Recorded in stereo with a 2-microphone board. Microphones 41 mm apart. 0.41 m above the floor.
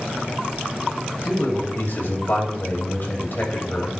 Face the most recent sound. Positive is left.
turn(degrees=55)  # may be behind; listen again after turning